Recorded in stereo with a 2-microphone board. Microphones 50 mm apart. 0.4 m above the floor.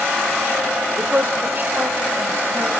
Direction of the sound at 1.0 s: 35° right (ahead or behind).